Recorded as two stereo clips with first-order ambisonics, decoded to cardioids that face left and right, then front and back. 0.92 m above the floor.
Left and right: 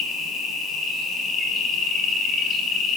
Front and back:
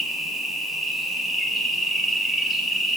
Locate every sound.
0.0 s an insect: 85° left, 0.9 m